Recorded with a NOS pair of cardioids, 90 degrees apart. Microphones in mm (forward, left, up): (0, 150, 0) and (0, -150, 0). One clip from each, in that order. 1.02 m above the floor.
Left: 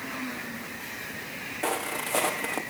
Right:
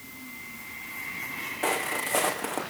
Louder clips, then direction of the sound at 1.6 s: Right 2 dB; 5° right.